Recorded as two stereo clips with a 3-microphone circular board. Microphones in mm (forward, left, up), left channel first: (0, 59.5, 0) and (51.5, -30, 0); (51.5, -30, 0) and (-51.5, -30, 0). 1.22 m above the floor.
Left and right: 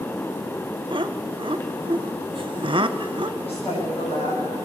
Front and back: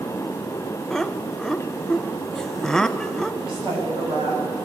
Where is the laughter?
85° right, 1.0 m.